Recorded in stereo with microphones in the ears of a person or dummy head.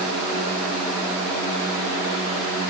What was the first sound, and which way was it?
Only background noise.